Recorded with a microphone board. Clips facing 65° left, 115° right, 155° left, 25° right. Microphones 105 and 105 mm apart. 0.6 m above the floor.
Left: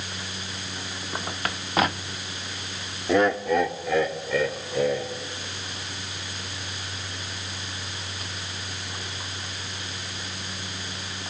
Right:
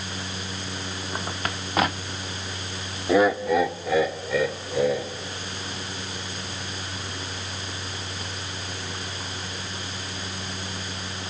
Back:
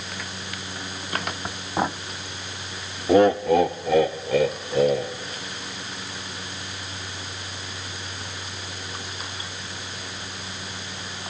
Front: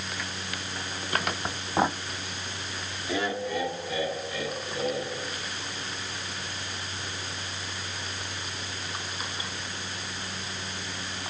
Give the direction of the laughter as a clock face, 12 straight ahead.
6 o'clock.